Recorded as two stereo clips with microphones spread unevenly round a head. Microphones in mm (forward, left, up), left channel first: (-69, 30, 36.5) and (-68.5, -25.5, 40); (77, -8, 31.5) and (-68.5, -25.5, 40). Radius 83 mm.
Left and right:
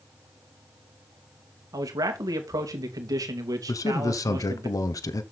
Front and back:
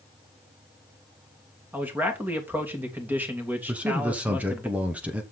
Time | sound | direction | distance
1.7 | a man speaking | 95° right | 2.5 m
3.7 | a man speaking | 105° left | 0.9 m